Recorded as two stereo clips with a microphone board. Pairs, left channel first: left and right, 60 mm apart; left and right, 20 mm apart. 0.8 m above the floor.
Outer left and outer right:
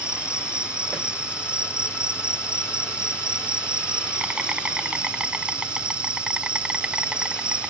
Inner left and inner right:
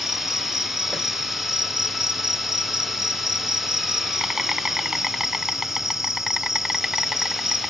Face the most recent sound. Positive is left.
turn(degrees=-15)  # may be behind; listen again after turning